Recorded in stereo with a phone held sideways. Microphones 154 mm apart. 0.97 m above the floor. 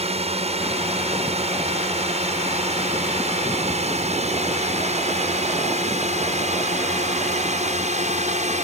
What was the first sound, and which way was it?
A drone, 45° right (ahead or behind).